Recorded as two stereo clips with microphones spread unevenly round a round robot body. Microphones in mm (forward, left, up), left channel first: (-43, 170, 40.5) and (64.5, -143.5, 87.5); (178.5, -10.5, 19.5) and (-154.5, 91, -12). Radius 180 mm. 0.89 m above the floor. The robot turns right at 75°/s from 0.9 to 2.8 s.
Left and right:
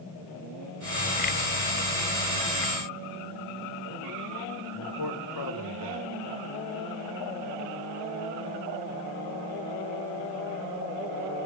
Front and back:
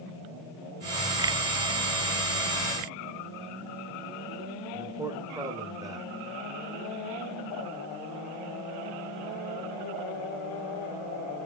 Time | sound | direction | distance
4.7 | a man speaking | 85° left | 3.5 m